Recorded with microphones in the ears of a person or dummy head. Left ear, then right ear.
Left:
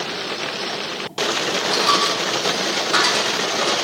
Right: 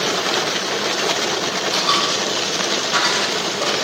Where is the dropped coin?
60° left (ahead or behind), 2.5 m.